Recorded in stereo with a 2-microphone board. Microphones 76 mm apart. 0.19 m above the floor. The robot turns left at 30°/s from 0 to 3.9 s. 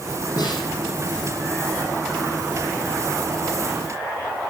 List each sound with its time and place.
0.4 s a snare drum: 55° left (ahead or behind), 6.5 m; by 0.7 s 65° left (ahead or behind), 6.5 m